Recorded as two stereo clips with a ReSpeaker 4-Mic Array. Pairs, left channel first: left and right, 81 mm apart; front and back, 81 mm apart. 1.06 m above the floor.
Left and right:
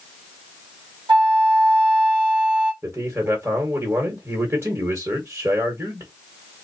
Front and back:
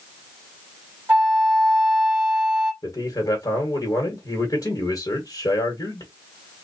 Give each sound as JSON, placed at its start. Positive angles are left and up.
{"t": 1.1, "sound": "a flute", "azimuth_deg": -110, "distance_m": 2.5}
{"t": 2.8, "sound": "a man speaking", "azimuth_deg": -35, "distance_m": 1.5}